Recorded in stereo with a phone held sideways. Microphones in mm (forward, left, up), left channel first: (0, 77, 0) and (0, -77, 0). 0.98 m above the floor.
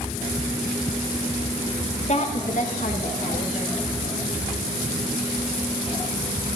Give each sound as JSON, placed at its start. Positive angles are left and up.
{"t": 2.1, "sound": "a woman speaking", "side_deg": 45, "distance_m": 1.1}